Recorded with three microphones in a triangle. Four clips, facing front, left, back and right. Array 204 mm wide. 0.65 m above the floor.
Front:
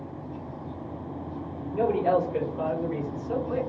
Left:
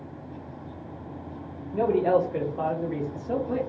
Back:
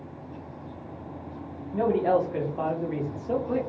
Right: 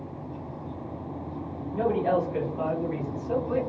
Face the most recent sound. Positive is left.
turn(degrees=170)